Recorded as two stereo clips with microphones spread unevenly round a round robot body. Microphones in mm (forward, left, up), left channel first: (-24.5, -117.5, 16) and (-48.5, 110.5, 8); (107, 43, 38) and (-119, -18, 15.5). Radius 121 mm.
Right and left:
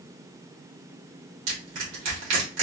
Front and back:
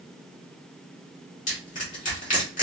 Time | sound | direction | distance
1.5 | crushing | 75° left | 2 m